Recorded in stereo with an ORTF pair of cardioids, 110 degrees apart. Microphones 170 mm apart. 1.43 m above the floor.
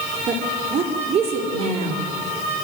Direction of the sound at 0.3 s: 40° right.